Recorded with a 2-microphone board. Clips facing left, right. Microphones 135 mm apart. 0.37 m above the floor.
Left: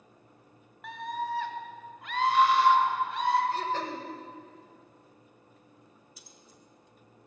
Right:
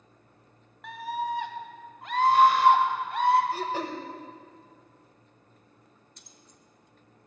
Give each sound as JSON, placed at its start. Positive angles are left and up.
{"t": 0.8, "sound": "a scream", "side_deg": 0, "distance_m": 1.0}
{"t": 3.5, "sound": "throat clearing", "side_deg": -10, "distance_m": 1.3}
{"t": 6.2, "sound": "keys jangling", "side_deg": 5, "distance_m": 0.7}